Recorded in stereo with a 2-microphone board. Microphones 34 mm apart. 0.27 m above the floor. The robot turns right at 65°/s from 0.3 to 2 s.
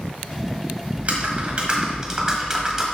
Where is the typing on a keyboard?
95° right, 1.4 m; by 2.8 s 30° right, 1.4 m.